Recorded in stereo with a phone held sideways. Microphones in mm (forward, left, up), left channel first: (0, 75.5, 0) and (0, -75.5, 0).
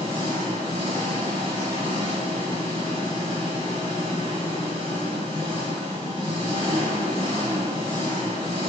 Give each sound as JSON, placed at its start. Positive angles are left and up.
{"t": 0.0, "sound": "an engine running", "side_deg": 30, "distance_m": 1.6}